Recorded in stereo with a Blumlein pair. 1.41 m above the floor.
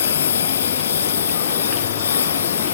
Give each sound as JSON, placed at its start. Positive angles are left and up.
{"t": 0.0, "sound": "a lawn mower", "azimuth_deg": 70}